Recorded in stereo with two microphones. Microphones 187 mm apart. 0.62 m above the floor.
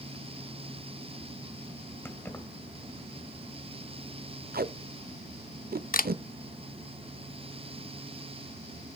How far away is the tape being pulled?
About 0.6 m.